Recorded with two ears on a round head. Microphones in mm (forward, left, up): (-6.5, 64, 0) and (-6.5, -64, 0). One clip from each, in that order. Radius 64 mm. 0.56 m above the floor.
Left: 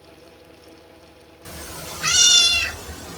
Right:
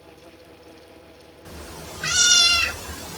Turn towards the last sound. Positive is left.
turn(degrees=-20)  # may be behind; listen again after turning